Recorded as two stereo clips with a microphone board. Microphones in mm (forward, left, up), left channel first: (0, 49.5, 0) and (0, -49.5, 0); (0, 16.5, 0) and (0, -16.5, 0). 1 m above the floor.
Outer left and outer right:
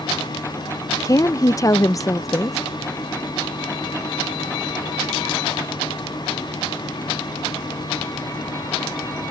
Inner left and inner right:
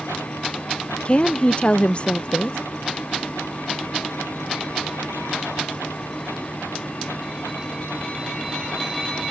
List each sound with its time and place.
1.1 s a woman speaking: 35° left (ahead or behind)